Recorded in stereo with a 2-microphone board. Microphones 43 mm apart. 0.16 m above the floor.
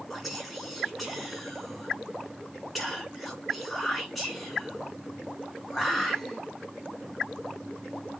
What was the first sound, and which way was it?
Whispering, 5° left (ahead or behind).